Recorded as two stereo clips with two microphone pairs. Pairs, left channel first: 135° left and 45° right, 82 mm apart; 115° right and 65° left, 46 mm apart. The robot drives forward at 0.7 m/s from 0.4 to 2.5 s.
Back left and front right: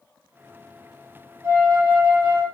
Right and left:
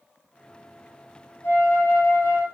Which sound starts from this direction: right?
A flute, at 1.4 s.